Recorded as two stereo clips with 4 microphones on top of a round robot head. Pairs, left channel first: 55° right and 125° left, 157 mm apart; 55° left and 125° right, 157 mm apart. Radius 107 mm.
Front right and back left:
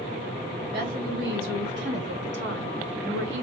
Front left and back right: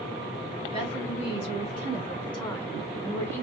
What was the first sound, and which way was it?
A woman speaking, 105° left.